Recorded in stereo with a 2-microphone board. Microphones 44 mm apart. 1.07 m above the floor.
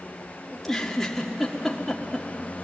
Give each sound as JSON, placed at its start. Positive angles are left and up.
{"t": 0.5, "sound": "a giggle", "side_deg": 10, "distance_m": 1.7}